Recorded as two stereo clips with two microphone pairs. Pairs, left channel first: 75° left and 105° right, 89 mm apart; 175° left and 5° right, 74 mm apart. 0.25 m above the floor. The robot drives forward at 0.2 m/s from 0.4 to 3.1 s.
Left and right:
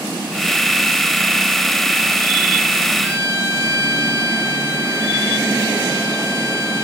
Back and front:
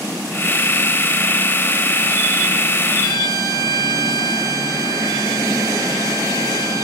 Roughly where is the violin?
Behind.